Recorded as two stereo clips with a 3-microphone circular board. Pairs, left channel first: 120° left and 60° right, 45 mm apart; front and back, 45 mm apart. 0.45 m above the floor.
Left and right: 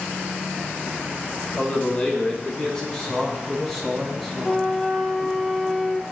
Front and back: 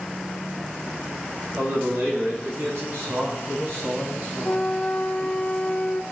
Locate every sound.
1.5 s a man speaking: straight behind, 5.5 m; by 5.4 s 125° right, 4.5 m
4.4 s a flute: 40° left, 0.8 m